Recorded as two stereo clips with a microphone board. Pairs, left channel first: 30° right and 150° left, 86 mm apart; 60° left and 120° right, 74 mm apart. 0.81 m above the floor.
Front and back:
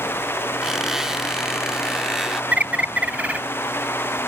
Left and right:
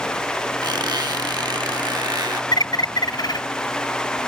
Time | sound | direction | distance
0.6 | a squeak | 125° right | ?
2.5 | a bird | 80° left | ?